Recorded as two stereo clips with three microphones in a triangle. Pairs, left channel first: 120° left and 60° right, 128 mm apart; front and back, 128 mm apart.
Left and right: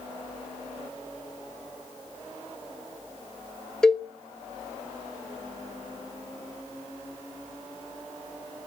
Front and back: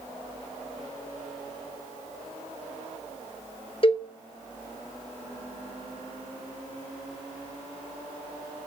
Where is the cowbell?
35° left, 0.6 m.